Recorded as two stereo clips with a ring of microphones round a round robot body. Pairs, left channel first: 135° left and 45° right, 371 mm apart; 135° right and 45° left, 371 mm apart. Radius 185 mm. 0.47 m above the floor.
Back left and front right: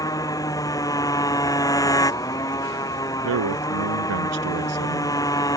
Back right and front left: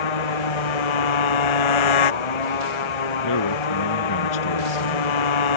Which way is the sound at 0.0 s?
145° right.